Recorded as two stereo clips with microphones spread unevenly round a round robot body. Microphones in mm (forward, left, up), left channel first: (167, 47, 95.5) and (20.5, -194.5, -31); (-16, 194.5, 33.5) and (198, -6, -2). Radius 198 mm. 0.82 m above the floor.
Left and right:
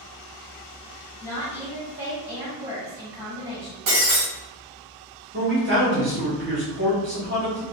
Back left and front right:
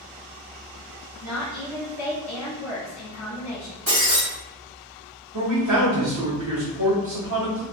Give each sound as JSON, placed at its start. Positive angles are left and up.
{"t": 1.2, "sound": "a woman speaking", "azimuth_deg": 180, "distance_m": 1.2}
{"t": 3.9, "sound": "breaking glass", "azimuth_deg": -105, "distance_m": 1.8}
{"t": 5.3, "sound": "a man speaking", "azimuth_deg": -80, "distance_m": 1.9}